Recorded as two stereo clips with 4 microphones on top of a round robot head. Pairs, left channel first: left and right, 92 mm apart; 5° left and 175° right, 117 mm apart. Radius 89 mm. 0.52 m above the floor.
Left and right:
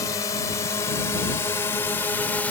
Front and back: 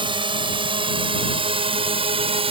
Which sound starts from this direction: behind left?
A drone, at 0.0 s.